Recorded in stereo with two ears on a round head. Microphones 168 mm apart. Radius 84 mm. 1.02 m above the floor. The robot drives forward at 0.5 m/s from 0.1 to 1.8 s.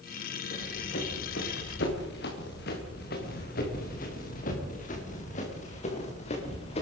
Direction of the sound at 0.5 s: 65° left (ahead or behind).